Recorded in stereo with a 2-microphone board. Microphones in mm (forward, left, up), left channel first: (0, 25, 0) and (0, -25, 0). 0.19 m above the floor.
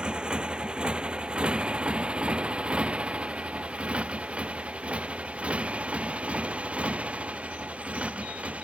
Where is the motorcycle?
20° right (ahead or behind); by 8.7 s 25° right (ahead or behind).